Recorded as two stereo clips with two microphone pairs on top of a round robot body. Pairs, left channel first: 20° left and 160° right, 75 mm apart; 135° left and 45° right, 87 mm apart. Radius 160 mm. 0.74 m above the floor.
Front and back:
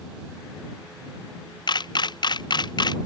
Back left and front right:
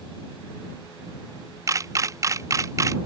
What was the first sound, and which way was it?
A camera shutter, 10° left.